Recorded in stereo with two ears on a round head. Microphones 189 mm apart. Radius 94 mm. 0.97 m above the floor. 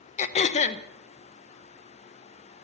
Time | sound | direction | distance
0.2 | throat clearing | 35° left (ahead or behind) | 0.9 m